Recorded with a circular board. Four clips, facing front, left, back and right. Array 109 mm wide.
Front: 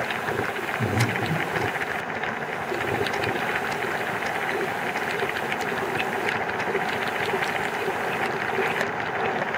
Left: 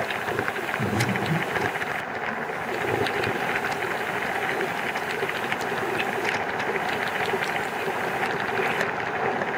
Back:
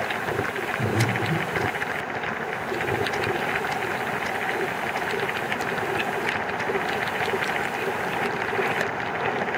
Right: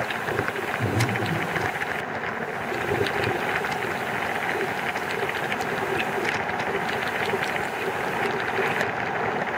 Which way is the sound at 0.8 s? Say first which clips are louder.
Left 1 dB, back 1 dB; 110° left.